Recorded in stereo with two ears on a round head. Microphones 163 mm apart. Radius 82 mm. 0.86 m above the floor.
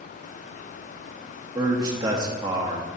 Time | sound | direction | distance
1.6 | a man speaking | 20° right (ahead or behind) | 1.1 m